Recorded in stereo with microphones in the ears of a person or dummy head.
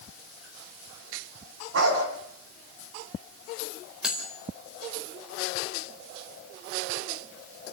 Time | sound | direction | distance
1.7 | a dog barking | 75° right (ahead or behind) | 5 m
4.0 | cutlery clinking | 5° right (ahead or behind) | 4 m